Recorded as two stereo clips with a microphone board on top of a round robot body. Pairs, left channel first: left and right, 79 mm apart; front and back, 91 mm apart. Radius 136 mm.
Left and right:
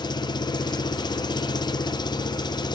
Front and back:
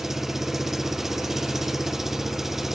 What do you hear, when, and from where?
0.0 s an engine running: 95° left, 0.9 m